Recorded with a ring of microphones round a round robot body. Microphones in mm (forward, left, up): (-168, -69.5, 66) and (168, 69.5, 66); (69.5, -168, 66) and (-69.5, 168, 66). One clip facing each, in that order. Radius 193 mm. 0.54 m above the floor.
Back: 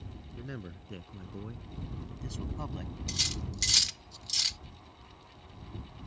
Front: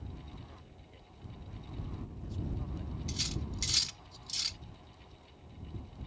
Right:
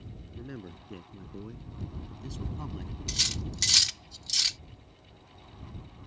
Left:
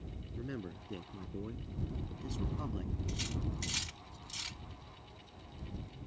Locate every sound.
0.4 s a man speaking: 160° right; by 3.0 s 145° right
3.1 s cutlery clinking: 85° right